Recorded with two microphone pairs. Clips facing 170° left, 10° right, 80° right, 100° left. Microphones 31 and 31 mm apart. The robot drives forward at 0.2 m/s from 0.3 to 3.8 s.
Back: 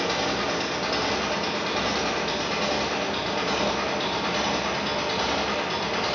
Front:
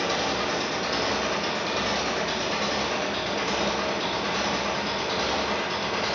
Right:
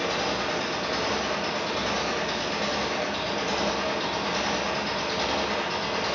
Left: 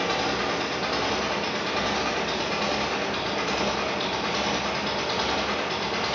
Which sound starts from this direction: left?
An engine running, at 0.0 s.